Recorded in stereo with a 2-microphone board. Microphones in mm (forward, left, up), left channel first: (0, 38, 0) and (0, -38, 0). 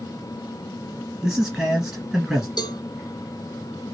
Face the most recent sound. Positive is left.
turn(degrees=70)  # may be behind; listen again after turning